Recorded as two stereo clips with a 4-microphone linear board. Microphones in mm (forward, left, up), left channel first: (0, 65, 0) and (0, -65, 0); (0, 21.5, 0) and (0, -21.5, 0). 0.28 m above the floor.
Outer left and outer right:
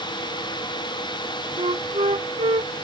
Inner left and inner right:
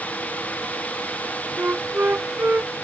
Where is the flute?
55° right (ahead or behind).